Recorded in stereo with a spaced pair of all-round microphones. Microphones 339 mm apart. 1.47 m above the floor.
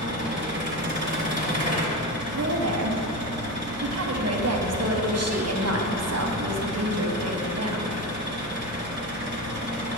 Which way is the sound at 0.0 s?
30° right (ahead or behind).